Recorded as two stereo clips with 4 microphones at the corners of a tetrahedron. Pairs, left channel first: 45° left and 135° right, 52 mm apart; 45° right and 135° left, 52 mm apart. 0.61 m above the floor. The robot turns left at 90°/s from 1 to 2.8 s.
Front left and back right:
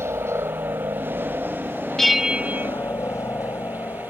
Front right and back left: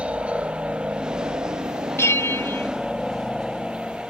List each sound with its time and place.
0.0 s a helicopter: 160° right; by 4.1 s 40° left
2.0 s a bell: 35° right; by 2.7 s 100° right